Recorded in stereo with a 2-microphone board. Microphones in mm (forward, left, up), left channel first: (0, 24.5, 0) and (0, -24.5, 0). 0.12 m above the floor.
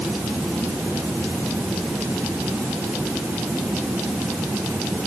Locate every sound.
Only background noise.